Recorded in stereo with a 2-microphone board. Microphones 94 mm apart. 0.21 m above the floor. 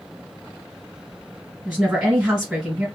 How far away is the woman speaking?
About 1.8 m.